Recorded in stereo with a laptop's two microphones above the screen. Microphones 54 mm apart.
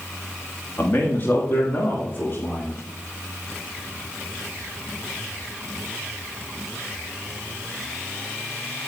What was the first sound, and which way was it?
A man speaking, 40° left (ahead or behind).